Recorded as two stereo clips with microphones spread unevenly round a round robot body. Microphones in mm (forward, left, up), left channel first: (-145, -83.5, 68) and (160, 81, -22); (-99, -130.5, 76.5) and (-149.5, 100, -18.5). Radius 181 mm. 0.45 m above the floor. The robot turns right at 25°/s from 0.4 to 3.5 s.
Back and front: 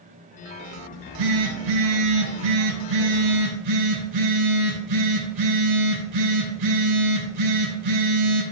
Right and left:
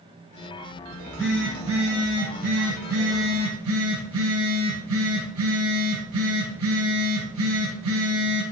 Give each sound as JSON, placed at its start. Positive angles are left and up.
{"t": 0.9, "sound": "a phone buzzing", "azimuth_deg": 0, "distance_m": 4.0}